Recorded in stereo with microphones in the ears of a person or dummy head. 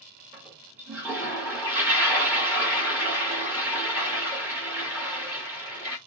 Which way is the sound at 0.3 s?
15° right (ahead or behind).